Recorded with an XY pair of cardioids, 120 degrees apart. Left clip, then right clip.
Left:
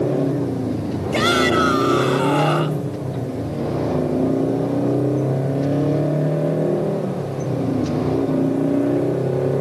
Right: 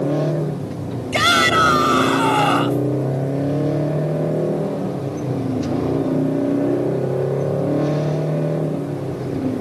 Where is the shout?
30° right.